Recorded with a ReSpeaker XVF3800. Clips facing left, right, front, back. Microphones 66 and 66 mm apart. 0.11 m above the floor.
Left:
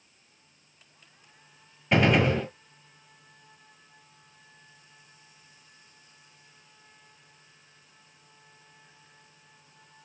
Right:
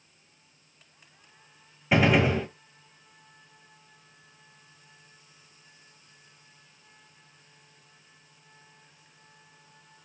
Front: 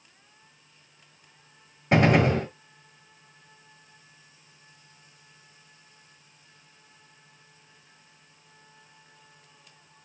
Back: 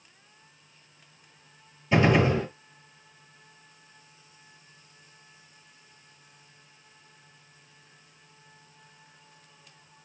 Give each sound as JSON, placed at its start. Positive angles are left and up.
{"t": 1.9, "sound": "a gunshot", "azimuth_deg": -10, "distance_m": 1.2}